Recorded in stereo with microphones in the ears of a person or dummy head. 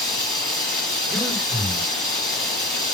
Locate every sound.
0.0 s running water: 5° left (ahead or behind), 4.5 m
1.1 s breathing: 10° right (ahead or behind), 4.5 m